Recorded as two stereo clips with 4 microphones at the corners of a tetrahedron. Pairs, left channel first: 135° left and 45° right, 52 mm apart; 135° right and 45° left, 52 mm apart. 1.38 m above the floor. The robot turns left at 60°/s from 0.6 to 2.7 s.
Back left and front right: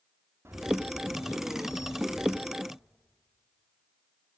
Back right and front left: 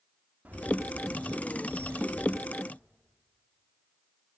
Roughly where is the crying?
I don't hear crying.